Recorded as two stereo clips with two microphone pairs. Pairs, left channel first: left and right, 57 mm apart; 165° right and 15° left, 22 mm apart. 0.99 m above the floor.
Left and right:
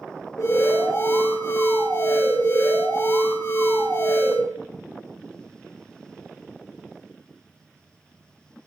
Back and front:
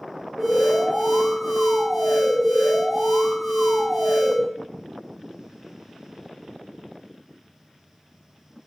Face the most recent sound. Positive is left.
turn(degrees=80)